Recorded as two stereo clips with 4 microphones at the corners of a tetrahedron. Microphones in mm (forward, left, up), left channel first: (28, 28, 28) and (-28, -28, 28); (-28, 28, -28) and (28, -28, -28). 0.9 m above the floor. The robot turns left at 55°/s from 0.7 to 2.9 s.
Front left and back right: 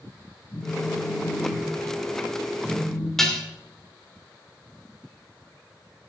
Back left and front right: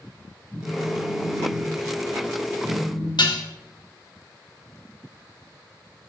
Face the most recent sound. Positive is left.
turn(degrees=130)